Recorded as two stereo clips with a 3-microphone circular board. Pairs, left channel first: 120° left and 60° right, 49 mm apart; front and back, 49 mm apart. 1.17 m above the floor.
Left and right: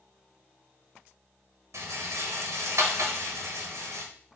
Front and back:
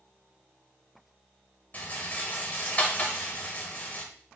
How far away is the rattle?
About 1.0 m.